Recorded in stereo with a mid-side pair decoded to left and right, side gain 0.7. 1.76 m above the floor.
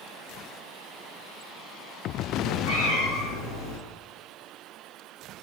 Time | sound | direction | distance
2.4 | a cat meowing | 35° left | 5 m